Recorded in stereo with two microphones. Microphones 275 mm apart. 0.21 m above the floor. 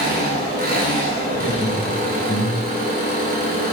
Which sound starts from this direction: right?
An engine running, at 0.0 s.